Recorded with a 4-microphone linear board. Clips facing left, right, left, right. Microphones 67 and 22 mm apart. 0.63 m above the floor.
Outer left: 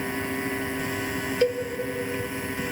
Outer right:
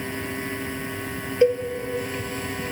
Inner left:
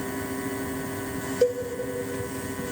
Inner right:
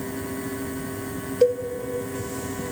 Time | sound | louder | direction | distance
1.4 | a cowbell | outer right 5 dB, inner right 4 dB | 15° right (ahead or behind) | 0.8 m